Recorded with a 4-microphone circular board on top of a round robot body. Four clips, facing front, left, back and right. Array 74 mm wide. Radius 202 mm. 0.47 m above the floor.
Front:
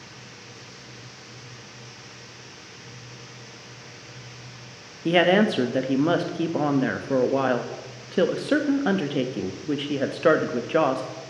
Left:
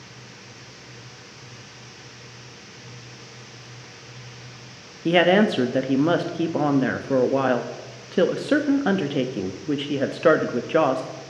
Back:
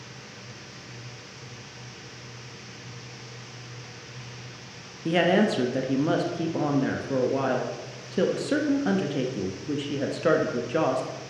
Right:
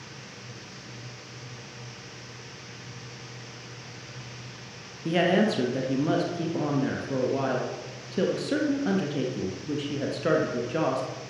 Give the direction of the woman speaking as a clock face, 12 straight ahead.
10 o'clock.